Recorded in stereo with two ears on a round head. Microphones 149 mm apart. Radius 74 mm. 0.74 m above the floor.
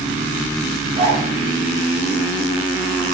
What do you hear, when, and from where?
0.9 s a zipper: 40° right (ahead or behind), 9 m